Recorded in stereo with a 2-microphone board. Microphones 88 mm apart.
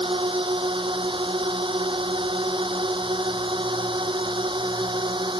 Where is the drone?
80° right; by 5.4 s 65° right (ahead or behind).